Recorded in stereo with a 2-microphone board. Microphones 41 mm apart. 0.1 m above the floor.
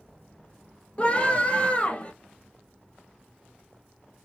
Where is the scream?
30° left (ahead or behind), 2.0 m.